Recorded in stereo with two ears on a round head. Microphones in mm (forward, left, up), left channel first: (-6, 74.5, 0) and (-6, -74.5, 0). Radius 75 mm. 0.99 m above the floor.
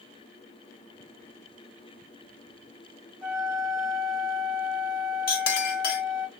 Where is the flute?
Centre (ahead or behind), 1.5 m.